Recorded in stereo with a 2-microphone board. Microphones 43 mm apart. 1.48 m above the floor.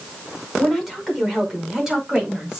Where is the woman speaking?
Centre (ahead or behind), 4.5 m; by 2.6 s 15° right (ahead or behind), 5 m.